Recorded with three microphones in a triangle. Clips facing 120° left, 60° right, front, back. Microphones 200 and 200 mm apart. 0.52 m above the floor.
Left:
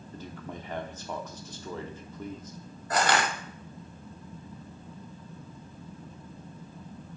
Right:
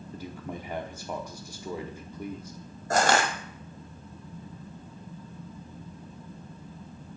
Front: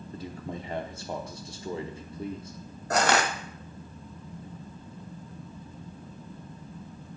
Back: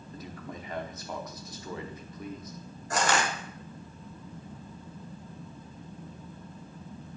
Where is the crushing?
15° right, 1.0 m.